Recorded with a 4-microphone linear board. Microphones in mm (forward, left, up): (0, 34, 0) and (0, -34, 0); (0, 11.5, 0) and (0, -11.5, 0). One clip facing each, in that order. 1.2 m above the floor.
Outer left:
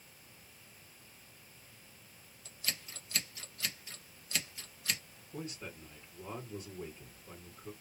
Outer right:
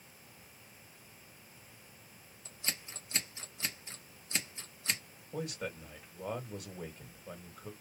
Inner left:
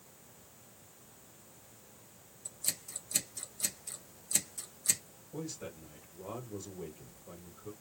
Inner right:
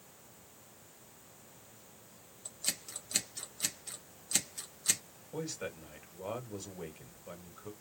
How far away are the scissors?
About 1.3 m.